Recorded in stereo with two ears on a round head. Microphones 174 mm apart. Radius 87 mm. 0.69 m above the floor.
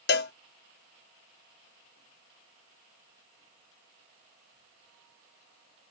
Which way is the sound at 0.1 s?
55° left (ahead or behind).